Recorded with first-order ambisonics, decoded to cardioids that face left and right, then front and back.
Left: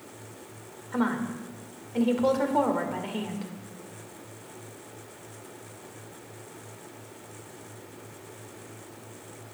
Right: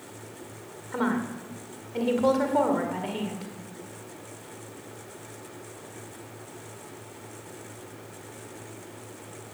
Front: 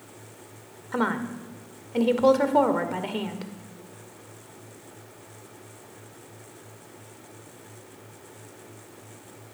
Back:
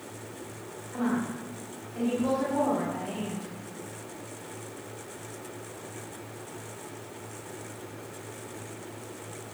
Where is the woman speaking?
5° right, 2 m.